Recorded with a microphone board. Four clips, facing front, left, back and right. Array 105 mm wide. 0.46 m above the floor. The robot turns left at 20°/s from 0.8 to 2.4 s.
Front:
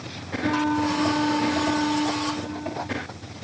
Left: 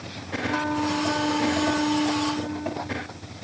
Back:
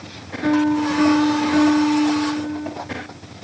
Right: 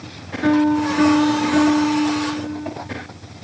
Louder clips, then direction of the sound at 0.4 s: Right 10 dB, back 5 dB; 110° right.